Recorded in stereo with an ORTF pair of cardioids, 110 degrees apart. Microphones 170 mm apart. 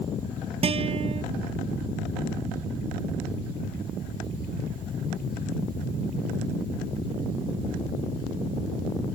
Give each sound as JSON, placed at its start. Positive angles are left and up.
{"t": 0.6, "sound": "a guitar", "azimuth_deg": -35}